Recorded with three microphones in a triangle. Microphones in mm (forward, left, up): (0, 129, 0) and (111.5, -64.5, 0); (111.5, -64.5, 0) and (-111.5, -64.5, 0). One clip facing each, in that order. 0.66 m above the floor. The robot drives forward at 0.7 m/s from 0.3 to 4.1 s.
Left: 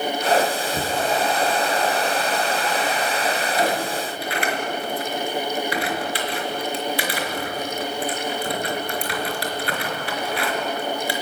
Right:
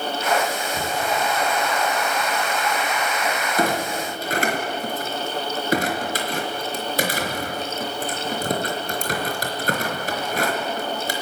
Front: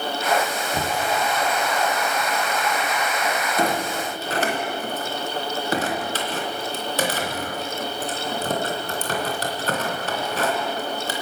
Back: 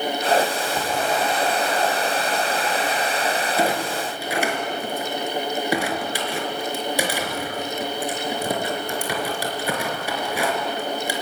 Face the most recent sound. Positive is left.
turn(degrees=-100)